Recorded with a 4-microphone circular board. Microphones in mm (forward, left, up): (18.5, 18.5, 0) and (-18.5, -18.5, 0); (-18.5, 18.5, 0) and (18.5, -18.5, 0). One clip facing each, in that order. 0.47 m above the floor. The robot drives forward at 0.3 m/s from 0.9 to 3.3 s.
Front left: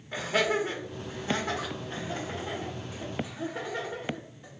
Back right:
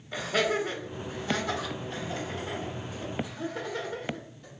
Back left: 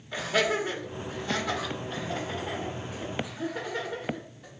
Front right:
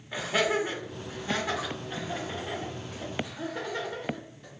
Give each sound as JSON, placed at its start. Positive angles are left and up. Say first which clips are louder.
{"t": 0.1, "sound": "laughter", "louder": "even, even", "azimuth_deg": 20, "distance_m": 1.3}